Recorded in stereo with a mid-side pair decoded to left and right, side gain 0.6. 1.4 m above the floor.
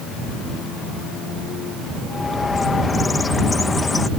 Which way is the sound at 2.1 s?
25° left.